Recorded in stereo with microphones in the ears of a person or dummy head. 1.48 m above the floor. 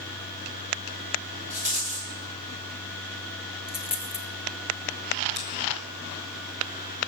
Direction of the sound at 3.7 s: 5° right (ahead or behind).